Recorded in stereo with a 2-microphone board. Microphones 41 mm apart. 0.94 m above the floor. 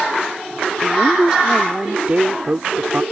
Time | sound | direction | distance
0.8 | a woman speaking | 10° right (ahead or behind) | ?